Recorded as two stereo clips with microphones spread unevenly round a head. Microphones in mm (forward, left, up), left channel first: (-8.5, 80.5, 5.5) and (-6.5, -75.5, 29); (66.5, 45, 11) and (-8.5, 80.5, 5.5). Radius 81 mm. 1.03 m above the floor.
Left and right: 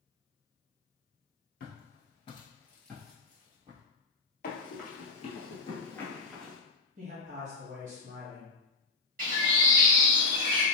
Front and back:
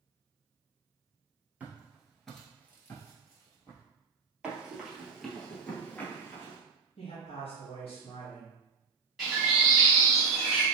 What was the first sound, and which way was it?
Footsteps, 90° left.